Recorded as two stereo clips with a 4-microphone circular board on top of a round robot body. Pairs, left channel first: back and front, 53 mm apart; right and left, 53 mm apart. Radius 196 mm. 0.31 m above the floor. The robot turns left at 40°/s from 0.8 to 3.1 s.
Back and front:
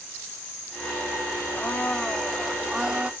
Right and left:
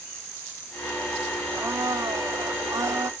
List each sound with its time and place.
1.5 s a blender: 125° left; by 3.1 s 65° left